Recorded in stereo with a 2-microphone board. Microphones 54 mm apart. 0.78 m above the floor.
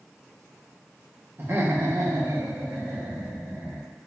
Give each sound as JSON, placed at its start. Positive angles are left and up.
{"t": 1.4, "sound": "laughter", "side_deg": -45, "distance_m": 0.8}